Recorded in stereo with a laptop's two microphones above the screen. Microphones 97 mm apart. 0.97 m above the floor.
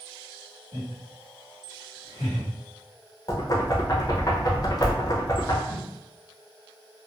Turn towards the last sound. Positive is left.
turn(degrees=-25)  # may be behind; listen again after turning